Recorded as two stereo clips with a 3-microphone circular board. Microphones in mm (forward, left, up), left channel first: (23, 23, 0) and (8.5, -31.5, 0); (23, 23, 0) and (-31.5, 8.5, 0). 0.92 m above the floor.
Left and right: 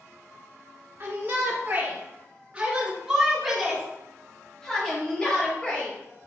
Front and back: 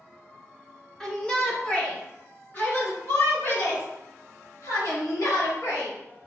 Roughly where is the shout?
Ahead right.